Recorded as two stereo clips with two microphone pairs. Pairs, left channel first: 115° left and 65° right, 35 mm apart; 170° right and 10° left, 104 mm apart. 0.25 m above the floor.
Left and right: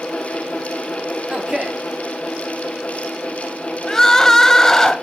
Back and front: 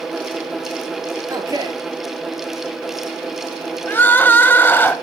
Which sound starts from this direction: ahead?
A man speaking, at 1.3 s.